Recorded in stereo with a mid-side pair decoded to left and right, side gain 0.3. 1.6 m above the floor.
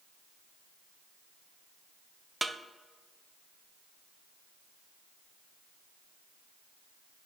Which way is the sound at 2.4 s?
25° right.